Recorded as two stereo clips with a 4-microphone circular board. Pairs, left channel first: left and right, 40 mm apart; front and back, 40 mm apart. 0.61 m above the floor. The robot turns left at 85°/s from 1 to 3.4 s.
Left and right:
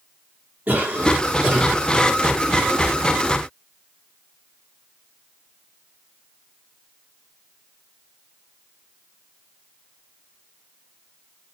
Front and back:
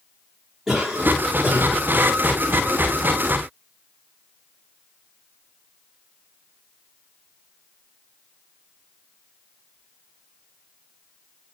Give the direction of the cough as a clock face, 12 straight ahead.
4 o'clock.